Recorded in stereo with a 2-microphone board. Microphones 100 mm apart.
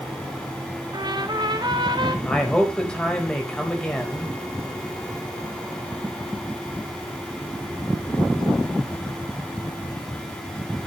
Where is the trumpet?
50° right (ahead or behind), 1.3 m.